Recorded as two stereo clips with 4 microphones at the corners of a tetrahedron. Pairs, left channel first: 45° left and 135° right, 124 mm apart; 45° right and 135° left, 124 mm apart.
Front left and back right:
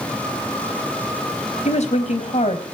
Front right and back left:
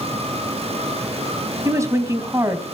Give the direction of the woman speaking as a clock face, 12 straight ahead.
10 o'clock.